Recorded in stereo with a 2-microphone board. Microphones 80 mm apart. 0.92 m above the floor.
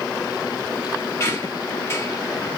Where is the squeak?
35° left (ahead or behind), 0.8 m.